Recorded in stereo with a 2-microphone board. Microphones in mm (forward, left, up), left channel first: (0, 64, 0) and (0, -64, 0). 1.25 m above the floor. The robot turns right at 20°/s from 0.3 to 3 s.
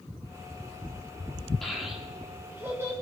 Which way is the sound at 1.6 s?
Centre (ahead or behind).